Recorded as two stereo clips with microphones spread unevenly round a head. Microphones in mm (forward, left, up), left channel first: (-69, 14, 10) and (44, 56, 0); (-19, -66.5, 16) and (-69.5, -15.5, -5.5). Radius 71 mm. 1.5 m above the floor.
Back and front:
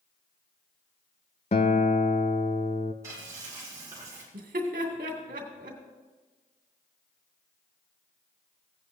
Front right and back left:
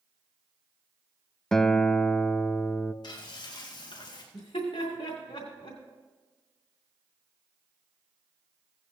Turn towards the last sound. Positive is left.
turn(degrees=0)